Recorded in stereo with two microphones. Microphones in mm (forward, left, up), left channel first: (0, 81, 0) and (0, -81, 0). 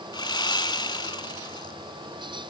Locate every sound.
0.1 s sawing: 25° left (ahead or behind), 0.9 m